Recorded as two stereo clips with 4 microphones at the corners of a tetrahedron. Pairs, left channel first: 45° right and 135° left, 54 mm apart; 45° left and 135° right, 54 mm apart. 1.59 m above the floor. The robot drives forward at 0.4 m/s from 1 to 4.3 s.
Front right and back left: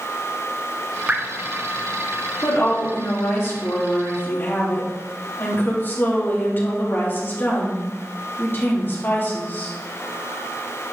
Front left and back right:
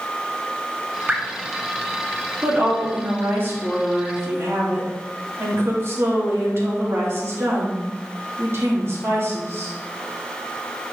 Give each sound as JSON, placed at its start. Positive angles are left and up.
{"t": 1.1, "sound": "dripping", "azimuth_deg": 170, "distance_m": 1.0}
{"t": 2.4, "sound": "a woman speaking", "azimuth_deg": -80, "distance_m": 2.5}